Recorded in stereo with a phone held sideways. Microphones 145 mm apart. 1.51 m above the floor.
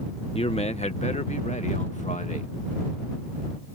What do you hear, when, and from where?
0.3 s a man speaking: 45° left (ahead or behind); by 2.5 s 60° left (ahead or behind)